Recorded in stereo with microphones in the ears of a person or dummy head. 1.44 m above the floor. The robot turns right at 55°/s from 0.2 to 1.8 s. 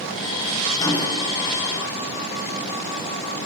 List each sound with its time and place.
0.8 s a microwave: 15° left (ahead or behind), 0.6 m; by 1.2 s 40° left (ahead or behind), 0.6 m